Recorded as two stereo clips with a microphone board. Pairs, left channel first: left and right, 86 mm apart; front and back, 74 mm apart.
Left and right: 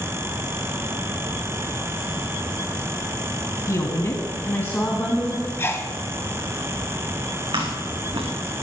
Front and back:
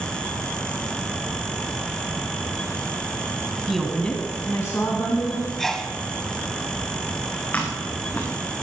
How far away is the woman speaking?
About 1.3 m.